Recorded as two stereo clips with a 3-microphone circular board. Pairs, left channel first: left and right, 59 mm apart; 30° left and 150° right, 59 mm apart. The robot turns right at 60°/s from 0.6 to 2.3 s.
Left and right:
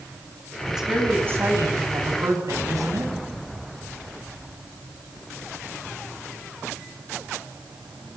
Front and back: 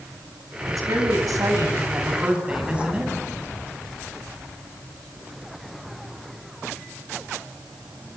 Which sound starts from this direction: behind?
A woman speaking, at 0.7 s.